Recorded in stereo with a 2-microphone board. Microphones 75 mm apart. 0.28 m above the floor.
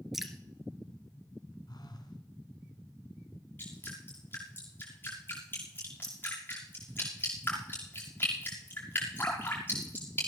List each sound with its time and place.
0.1 s dripping: 5° right (ahead or behind), 1.9 m
1.7 s a phone buzzing: 65° left (ahead or behind), 2 m
3.6 s dripping: 30° left (ahead or behind), 6.5 m